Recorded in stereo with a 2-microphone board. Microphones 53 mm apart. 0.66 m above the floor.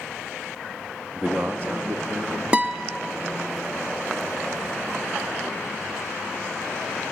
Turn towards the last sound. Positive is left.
turn(degrees=-25)  # may be behind; listen again after turning